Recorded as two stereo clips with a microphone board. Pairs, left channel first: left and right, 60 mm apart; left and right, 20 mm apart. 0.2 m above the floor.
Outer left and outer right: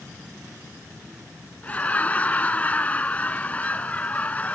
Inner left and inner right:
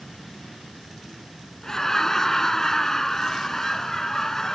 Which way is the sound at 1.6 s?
25° left (ahead or behind).